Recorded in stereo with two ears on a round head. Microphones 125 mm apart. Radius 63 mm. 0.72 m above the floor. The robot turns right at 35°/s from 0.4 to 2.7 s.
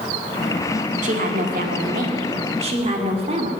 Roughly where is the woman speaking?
Right.